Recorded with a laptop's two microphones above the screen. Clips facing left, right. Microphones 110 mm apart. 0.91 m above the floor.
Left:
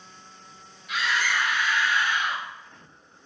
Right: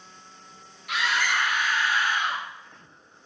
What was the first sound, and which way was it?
A scream, 70° right (ahead or behind).